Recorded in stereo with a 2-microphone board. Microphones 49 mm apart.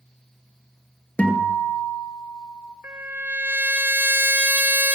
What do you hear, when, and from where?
1.2 s a guitar: 25° left (ahead or behind), 1.9 m
2.8 s a trumpet: 45° right (ahead or behind), 0.7 m